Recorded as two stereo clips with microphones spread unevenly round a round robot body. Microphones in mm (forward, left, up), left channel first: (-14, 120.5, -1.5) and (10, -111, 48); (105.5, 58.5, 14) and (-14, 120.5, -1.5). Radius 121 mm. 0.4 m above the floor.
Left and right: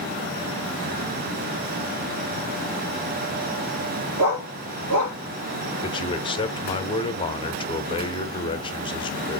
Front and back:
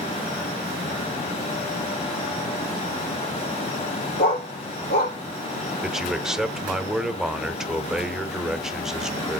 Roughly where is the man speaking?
Left.